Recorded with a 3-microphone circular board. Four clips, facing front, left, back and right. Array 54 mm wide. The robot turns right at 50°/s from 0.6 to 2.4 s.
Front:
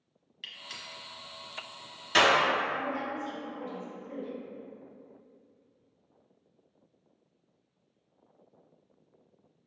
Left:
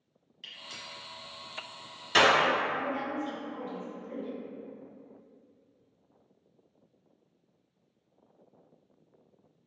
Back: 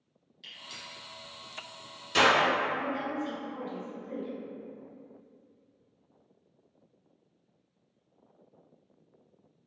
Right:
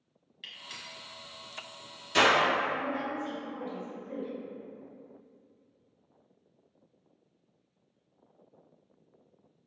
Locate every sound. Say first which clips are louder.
0.4 s a gunshot: even, front 2 dB; 30° right, 0.9 m; by 2.3 s 55° left, 0.9 m
2.7 s a woman speaking: even, back 1 dB; 145° right, 1.9 m